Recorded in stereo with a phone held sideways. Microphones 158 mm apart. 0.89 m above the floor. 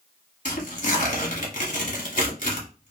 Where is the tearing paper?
55° left (ahead or behind), 1.1 m.